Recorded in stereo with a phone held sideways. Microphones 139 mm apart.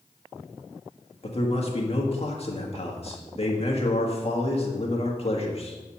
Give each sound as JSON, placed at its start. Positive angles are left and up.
{"t": 1.2, "sound": "a man speaking", "side_deg": 45, "distance_m": 1.6}